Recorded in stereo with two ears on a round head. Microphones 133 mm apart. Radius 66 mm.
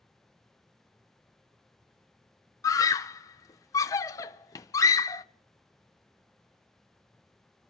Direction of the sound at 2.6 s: 20° left (ahead or behind).